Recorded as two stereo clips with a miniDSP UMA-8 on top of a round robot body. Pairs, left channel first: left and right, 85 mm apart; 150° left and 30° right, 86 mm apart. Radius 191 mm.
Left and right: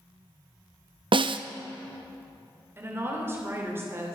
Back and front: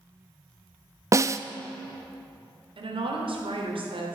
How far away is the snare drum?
About 0.6 m.